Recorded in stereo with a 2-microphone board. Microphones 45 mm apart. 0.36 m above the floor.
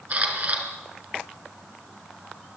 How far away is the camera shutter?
About 4.5 m.